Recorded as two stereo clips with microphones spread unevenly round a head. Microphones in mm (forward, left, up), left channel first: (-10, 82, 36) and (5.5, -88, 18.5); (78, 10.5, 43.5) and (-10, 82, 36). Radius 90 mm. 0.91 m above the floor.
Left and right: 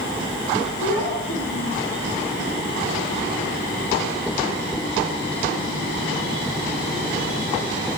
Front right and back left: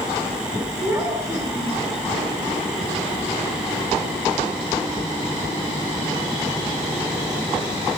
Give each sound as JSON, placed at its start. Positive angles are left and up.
{"t": 0.8, "sound": "a child speaking", "azimuth_deg": 70, "distance_m": 7.0}